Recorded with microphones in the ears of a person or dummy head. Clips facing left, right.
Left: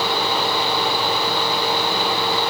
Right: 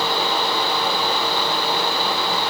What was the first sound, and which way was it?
Only background noise.